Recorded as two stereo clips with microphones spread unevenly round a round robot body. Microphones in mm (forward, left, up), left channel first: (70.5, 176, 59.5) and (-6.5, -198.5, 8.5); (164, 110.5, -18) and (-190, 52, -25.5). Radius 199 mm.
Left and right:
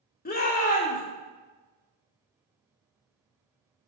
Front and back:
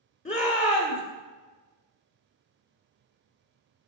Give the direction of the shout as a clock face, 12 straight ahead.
11 o'clock.